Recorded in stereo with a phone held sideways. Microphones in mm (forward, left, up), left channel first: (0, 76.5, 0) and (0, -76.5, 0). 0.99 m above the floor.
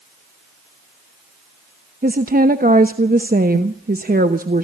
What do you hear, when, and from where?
2.0 s a woman speaking: 70° right (ahead or behind), 1.0 m